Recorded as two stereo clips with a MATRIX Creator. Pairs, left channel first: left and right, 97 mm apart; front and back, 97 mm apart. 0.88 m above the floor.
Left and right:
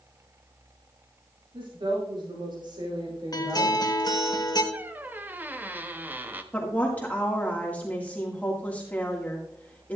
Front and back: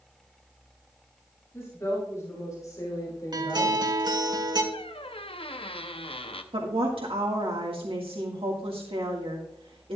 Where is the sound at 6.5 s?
165° left, 1.8 m.